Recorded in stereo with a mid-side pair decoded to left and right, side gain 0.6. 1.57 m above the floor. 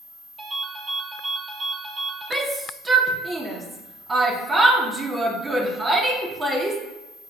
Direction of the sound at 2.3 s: 20° right.